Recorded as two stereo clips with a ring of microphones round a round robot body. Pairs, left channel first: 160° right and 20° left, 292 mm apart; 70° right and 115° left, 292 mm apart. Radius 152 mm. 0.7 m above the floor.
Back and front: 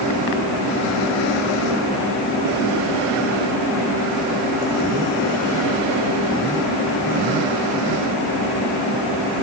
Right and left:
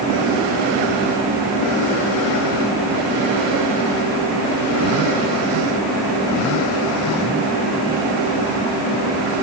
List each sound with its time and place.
Only background noise.